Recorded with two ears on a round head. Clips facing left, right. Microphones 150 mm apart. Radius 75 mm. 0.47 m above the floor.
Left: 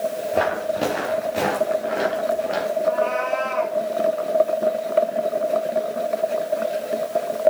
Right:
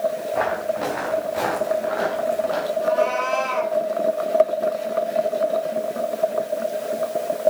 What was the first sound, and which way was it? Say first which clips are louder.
Footsteps: left 1 dB; 35° left (ahead or behind).